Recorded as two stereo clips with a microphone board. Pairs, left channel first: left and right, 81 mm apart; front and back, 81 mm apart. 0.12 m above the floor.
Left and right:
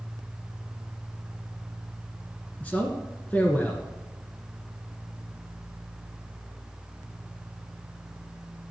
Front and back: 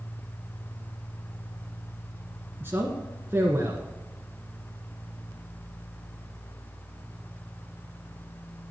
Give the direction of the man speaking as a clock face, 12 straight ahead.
7 o'clock.